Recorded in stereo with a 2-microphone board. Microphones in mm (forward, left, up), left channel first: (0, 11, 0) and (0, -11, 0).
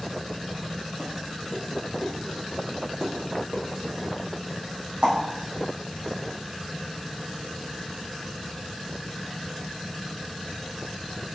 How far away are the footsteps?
About 3 m.